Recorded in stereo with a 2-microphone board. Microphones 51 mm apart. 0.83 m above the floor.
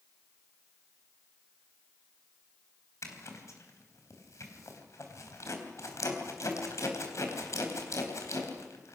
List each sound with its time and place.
3.0 s a zipper: 65° left (ahead or behind), 3.5 m